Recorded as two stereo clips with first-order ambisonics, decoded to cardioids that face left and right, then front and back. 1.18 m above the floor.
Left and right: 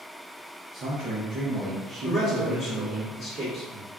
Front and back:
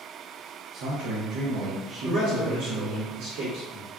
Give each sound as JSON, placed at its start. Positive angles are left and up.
{"t": 0.7, "sound": "a man speaking", "azimuth_deg": -150, "distance_m": 0.6}
{"t": 2.0, "sound": "a man speaking", "azimuth_deg": 170, "distance_m": 1.6}